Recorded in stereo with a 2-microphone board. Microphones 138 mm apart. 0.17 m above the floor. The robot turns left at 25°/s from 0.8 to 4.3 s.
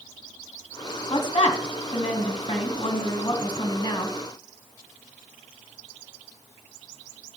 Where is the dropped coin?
I don't hear a dropped coin.